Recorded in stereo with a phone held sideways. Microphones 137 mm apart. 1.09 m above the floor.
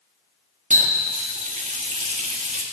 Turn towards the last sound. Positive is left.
turn(degrees=-60)  # may be behind; listen again after turning